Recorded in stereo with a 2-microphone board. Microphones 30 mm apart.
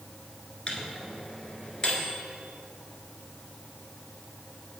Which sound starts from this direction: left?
A microwave, at 0.7 s.